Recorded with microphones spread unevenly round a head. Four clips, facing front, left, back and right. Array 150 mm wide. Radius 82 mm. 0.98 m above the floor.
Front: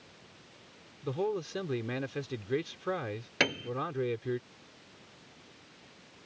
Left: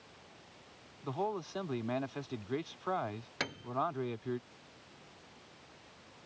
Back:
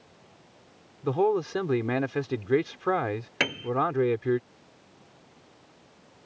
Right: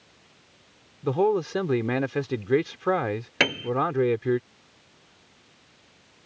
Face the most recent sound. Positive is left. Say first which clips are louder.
# right 14 dB, even
turn(degrees=-70)